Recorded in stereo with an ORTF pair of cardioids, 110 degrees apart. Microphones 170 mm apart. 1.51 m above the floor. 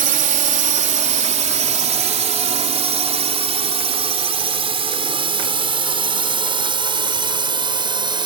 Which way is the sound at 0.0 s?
50° right.